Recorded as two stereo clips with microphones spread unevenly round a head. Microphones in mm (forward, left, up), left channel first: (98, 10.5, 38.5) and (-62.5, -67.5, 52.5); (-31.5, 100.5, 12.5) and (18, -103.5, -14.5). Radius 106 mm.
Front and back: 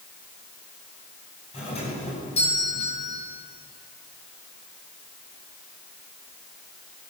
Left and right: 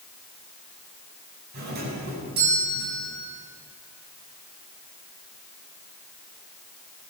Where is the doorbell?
30° right, 8.5 m.